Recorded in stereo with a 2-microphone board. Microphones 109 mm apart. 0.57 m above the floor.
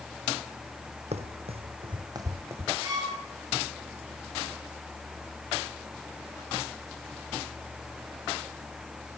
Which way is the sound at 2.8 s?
35° right (ahead or behind).